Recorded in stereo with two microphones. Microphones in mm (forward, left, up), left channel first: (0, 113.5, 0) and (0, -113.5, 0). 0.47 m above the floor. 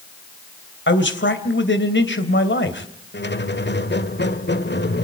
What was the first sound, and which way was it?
A man speaking, 55° left (ahead or behind).